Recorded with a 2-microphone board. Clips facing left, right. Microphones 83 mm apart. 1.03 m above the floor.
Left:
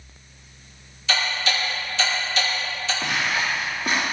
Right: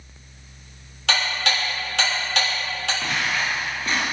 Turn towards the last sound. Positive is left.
turn(degrees=15)  # may be behind; listen again after turning